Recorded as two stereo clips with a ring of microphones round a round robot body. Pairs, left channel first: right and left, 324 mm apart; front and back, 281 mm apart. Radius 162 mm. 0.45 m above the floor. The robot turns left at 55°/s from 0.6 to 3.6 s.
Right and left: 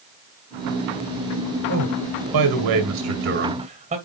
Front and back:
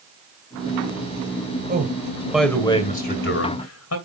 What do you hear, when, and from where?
1.7 s a man speaking: 125° left, 2 m; by 4.0 s 20° left, 2 m